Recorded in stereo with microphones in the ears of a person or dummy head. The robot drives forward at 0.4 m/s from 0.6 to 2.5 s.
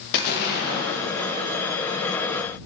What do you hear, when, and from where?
0.1 s an explosion: 50° left (ahead or behind), 0.6 m; by 1.6 s 75° left (ahead or behind), 0.5 m